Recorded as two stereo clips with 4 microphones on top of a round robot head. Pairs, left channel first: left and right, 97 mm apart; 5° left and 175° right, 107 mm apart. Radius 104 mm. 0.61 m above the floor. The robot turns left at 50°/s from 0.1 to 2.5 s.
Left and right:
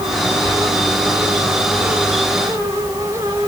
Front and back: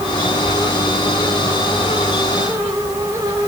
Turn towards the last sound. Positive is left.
turn(degrees=-110)